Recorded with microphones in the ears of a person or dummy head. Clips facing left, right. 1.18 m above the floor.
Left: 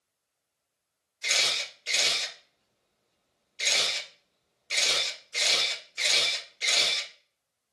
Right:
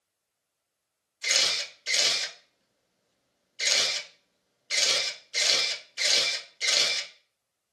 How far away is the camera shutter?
About 0.7 m.